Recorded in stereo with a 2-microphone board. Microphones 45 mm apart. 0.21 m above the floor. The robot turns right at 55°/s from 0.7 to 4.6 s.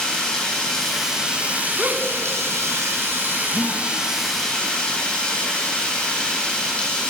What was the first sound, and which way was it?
Running water, 165° left.